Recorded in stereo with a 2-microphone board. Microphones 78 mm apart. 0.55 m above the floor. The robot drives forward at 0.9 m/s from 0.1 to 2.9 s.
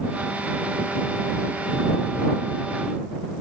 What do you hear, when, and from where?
Only background noise.